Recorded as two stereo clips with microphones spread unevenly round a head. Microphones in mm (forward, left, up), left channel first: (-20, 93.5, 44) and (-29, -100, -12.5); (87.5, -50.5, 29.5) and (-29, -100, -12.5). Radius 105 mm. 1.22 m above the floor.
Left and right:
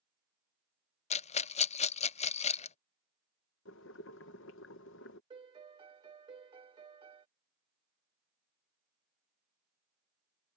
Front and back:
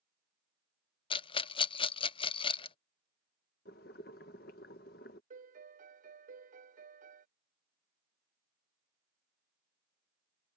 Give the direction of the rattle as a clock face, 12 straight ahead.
11 o'clock.